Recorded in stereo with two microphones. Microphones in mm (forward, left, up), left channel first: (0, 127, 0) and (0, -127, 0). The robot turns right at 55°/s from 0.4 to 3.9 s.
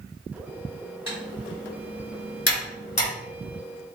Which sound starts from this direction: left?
Typing on a keyboard, at 1.1 s.